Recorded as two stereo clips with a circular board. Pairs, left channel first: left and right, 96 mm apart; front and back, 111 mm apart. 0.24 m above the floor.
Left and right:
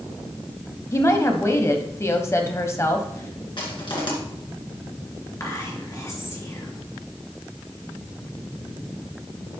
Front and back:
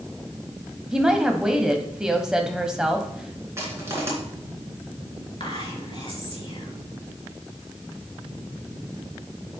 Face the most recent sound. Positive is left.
turn(degrees=35)